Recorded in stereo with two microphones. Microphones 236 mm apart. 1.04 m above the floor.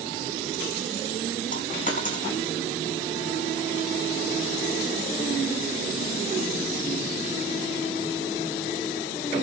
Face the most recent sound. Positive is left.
turn(degrees=35)  # may be behind; listen again after turning